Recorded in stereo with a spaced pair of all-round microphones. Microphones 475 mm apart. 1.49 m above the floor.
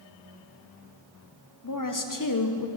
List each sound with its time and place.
1.6 s a woman speaking: 40° left (ahead or behind), 0.7 m